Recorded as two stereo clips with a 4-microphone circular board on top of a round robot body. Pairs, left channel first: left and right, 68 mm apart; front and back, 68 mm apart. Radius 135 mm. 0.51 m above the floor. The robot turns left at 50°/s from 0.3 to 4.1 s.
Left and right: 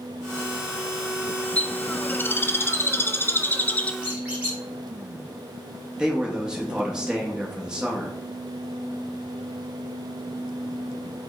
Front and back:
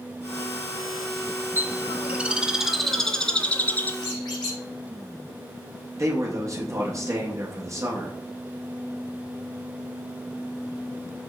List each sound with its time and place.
1.6 s a bird: 155° left, 0.6 m; by 3.9 s 35° left, 0.6 m
4.0 s a squeak: 15° right, 0.8 m; by 4.6 s 20° right, 0.8 m
6.0 s a man speaking: 165° right, 0.8 m